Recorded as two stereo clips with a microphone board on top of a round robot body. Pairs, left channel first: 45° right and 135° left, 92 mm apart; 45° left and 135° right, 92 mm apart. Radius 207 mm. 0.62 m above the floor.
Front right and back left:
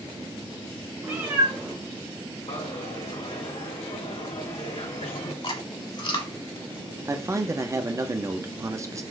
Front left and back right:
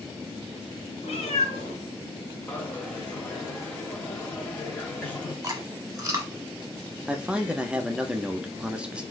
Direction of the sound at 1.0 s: 65° left.